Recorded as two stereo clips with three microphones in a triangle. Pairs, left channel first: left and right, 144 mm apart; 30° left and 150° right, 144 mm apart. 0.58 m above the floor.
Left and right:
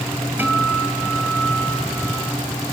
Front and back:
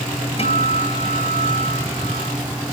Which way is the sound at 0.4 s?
15° right.